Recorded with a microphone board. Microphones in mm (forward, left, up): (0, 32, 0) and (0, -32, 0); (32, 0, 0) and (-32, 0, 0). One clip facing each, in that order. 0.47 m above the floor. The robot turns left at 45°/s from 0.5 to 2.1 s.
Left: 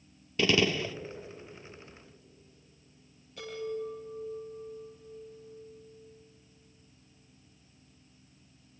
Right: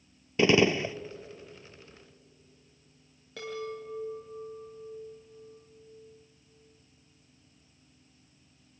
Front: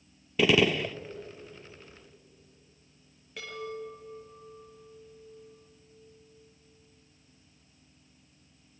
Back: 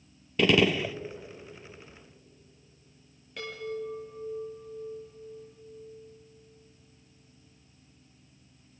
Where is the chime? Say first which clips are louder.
Left 1 dB, back 3 dB; 90° right, 7 m.